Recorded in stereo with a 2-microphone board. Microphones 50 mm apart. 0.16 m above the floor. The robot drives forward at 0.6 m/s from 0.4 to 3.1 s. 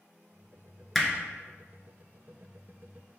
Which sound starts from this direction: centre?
Hammering, at 0.9 s.